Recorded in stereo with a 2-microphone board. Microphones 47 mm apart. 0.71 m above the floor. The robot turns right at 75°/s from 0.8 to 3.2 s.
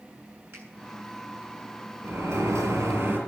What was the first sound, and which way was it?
A finger snap, 55° right (ahead or behind).